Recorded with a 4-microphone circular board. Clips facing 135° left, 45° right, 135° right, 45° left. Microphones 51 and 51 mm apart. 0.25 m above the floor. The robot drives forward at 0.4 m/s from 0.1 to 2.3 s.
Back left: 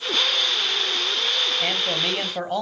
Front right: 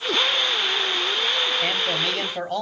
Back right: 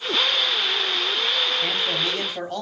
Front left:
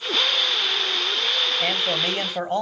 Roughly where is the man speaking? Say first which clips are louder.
Front right 1 dB, front left 1 dB; ahead left.